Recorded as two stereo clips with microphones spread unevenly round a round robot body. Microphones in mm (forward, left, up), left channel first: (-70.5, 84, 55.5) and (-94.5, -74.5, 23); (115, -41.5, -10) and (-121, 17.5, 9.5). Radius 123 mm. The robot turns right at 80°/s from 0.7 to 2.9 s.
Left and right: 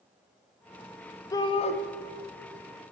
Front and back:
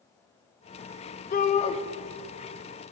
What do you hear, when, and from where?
1.3 s a shout: 5° left, 0.6 m; by 1.8 s 40° left, 0.6 m